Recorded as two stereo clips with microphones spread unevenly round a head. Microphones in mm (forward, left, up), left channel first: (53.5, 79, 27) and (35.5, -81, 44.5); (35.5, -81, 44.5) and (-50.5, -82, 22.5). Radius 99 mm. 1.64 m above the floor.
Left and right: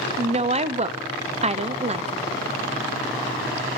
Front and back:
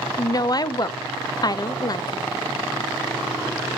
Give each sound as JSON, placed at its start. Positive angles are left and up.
{"t": 0.2, "sound": "a woman speaking", "azimuth_deg": -45, "distance_m": 0.8}